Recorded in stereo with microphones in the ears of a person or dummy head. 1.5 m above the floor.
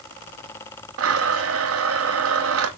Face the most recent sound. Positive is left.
turn(degrees=-80)